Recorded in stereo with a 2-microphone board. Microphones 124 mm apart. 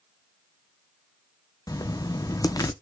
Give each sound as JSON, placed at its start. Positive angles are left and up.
{"t": 1.7, "sound": "writing", "side_deg": 30, "distance_m": 0.5}